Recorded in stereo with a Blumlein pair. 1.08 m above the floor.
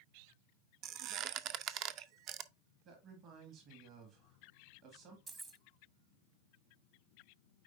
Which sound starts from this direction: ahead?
Keys jangling, at 5.3 s.